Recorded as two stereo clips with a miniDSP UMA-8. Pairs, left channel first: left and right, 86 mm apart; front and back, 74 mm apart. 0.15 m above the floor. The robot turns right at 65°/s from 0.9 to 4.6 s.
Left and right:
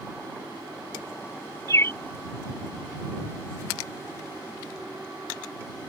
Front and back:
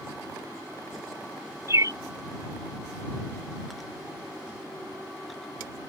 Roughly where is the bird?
Behind left.